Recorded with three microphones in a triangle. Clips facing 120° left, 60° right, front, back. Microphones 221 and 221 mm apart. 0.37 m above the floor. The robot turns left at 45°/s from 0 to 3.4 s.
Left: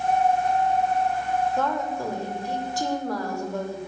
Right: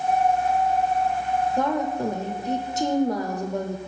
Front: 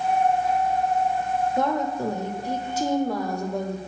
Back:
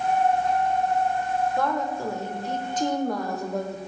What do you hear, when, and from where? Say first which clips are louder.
1.6 s a woman speaking: right 3 dB, front 2 dB; 15° right, 0.9 m; by 3.8 s 95° right, 0.9 m